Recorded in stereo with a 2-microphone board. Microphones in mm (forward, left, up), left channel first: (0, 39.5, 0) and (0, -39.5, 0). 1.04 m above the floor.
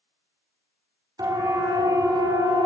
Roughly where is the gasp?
I don't hear a gasp.